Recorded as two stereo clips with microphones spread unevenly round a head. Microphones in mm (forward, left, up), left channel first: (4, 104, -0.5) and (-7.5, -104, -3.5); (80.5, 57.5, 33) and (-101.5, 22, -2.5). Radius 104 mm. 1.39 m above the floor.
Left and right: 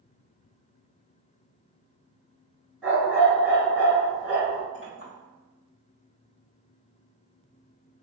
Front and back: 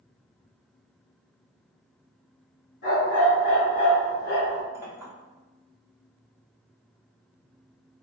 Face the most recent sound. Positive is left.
turn(degrees=110)